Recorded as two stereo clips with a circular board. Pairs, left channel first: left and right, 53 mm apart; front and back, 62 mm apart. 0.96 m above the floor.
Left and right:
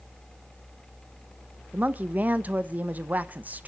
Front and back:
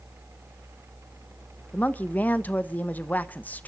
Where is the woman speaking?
50° right, 0.9 m.